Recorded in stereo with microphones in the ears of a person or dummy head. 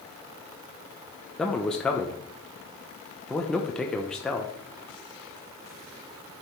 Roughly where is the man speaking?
Centre.